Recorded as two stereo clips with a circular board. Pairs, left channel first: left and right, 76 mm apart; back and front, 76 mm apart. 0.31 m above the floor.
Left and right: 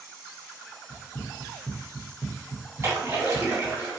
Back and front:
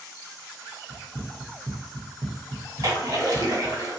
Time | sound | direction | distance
0.9 | running footsteps | 70° left | 0.7 m
2.8 | a splash | 35° right | 1.4 m